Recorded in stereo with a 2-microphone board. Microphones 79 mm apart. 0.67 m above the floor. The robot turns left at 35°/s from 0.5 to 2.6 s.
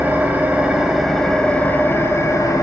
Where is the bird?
No bird in this recording.